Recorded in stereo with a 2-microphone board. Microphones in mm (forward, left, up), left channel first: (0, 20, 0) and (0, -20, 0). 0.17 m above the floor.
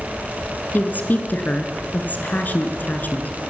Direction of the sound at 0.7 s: 45° left (ahead or behind).